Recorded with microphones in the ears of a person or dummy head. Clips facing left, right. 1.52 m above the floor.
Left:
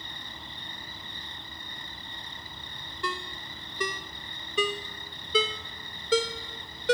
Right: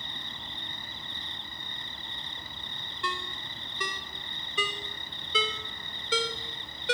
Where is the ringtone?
30° left (ahead or behind), 1.0 m.